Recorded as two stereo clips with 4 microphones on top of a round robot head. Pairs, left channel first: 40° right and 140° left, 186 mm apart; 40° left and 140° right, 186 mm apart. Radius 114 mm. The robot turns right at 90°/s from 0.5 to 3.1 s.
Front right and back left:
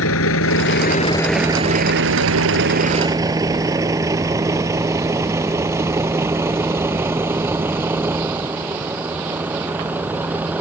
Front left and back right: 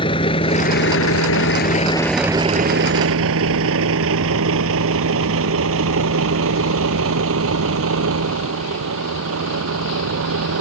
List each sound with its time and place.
0.0 s a vehicle: 30° right; by 10.6 s 135° right